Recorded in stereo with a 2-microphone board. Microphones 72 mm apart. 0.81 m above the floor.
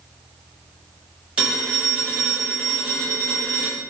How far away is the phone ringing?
About 1.4 m.